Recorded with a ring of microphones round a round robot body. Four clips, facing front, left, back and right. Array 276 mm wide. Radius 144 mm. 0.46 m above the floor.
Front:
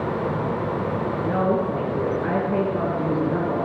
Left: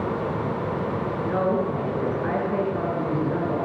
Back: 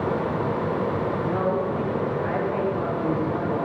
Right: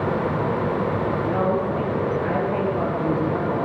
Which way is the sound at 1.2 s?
25° left.